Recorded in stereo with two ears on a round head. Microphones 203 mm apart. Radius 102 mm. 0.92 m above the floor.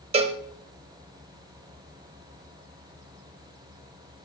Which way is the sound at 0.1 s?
25° right (ahead or behind).